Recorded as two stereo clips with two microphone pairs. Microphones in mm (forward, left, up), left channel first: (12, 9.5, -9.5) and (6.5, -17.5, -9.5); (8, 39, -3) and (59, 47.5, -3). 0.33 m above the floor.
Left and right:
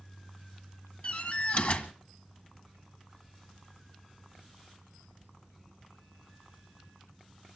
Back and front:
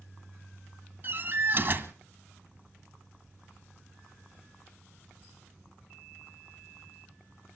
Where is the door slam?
55° left, 2.0 m.